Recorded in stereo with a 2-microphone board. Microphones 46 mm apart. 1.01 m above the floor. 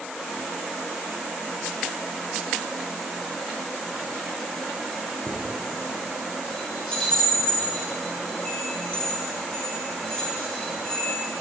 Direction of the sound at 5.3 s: 25° left (ahead or behind).